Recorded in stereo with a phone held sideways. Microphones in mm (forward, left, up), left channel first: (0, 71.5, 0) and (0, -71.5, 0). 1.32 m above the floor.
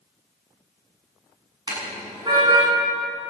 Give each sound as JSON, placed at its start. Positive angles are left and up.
{"t": 1.7, "sound": "a car horn", "side_deg": -30, "distance_m": 8.0}